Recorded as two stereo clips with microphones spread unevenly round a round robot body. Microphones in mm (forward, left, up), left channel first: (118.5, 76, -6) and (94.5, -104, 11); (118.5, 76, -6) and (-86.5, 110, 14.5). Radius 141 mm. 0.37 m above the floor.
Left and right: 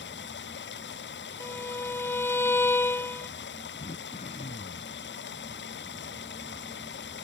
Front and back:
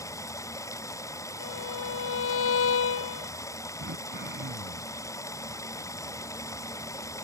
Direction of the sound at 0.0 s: 65° left.